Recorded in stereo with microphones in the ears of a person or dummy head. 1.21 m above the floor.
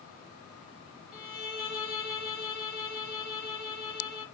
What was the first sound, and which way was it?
A violin, 5° right (ahead or behind).